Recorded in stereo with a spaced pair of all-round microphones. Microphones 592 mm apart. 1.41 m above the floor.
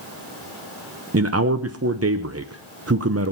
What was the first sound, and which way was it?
A man speaking, 25° right (ahead or behind).